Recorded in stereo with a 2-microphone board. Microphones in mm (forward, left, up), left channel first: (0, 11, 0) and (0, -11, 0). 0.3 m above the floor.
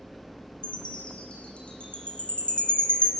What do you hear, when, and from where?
0.6 s a chime: 70° left (ahead or behind), 5 m